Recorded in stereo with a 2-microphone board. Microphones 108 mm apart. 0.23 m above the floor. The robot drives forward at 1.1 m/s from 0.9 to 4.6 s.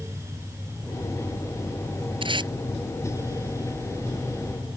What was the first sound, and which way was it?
Tape being pulled, 50° right (ahead or behind).